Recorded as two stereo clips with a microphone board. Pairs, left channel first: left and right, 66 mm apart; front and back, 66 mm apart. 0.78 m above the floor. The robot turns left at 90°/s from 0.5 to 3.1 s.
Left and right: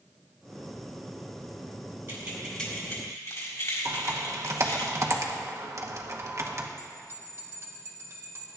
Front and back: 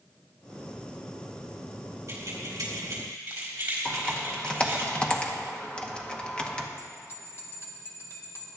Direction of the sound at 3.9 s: 70° right.